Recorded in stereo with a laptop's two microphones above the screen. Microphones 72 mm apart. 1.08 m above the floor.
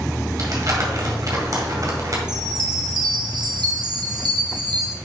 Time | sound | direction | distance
0.4 | crumpling | 50° right (ahead or behind) | 1.7 m
2.3 | a chime | 70° right (ahead or behind) | 1.5 m